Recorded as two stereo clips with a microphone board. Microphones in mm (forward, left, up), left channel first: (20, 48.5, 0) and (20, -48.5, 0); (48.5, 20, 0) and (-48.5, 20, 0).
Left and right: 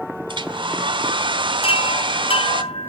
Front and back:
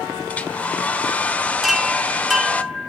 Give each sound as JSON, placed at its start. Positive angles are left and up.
{"t": 0.3, "sound": "a hair dryer", "azimuth_deg": -75, "distance_m": 1.1}
{"t": 1.6, "sound": "a chime", "azimuth_deg": 90, "distance_m": 0.7}